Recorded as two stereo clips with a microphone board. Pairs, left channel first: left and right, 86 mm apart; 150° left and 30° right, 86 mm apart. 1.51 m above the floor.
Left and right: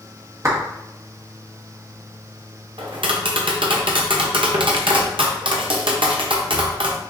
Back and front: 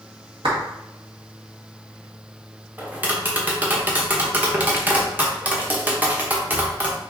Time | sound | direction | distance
0.4 | a clap | 35° right | 1.5 m
2.8 | tapping | 100° right | 0.8 m